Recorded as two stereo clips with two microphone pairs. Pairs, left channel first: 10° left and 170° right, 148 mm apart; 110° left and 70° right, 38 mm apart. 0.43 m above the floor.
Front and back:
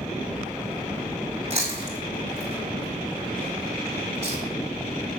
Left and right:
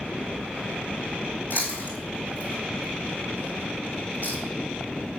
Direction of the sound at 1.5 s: 145° left.